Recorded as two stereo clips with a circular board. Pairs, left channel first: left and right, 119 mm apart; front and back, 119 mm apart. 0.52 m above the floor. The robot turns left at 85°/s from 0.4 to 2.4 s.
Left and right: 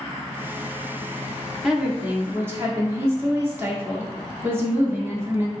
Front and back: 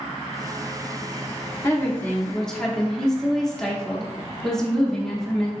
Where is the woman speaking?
10° right, 0.7 m; by 5.5 s 75° right, 0.7 m.